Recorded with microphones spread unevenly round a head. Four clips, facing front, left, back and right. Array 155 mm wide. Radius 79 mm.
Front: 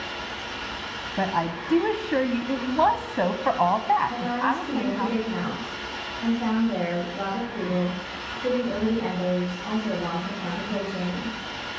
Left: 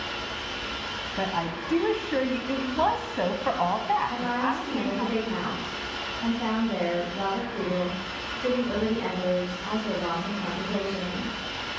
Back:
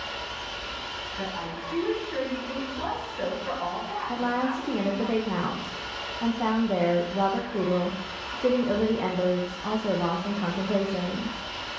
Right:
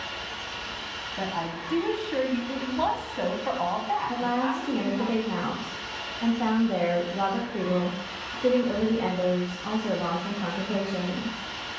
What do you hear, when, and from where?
0.0 s an engine running: 155° left, 2.5 m
1.2 s a woman speaking: 15° left, 0.7 m
4.1 s a woman speaking: 160° right, 1.2 m